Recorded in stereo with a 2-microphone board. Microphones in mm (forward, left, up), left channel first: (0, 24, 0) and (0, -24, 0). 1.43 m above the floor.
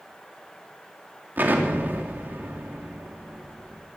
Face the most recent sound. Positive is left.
turn(degrees=-45)  # may be behind; listen again after turning